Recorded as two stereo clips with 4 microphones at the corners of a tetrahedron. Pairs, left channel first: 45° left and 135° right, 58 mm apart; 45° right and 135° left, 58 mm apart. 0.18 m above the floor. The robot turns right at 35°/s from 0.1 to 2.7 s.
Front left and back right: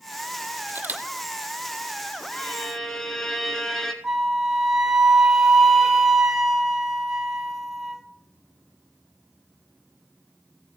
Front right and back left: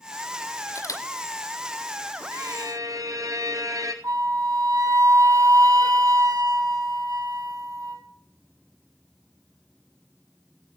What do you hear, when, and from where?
0.7 s a camera shutter: 80° right, 1.0 m; by 1.0 s 65° right, 1.0 m
2.3 s a violin: 115° left, 1.0 m; by 3.9 s 130° left, 1.0 m
4.0 s a flute: 140° left, 0.8 m